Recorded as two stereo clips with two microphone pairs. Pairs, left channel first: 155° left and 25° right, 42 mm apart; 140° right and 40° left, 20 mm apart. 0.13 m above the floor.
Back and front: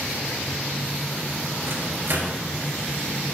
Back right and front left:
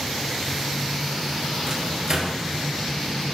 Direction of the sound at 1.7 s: 10° right.